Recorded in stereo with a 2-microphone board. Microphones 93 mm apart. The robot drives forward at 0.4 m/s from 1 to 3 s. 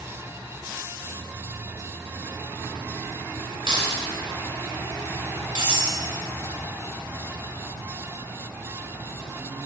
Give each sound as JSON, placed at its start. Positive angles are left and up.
{"t": 3.7, "sound": "keys jangling", "side_deg": -60, "distance_m": 1.5}
{"t": 5.5, "sound": "cutlery clinking", "side_deg": -60, "distance_m": 1.8}